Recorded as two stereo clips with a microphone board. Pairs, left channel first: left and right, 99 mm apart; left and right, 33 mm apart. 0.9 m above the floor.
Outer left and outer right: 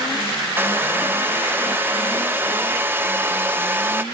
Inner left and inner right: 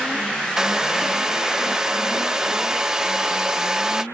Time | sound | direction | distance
0.6 | a hair dryer | 20° right (ahead or behind) | ?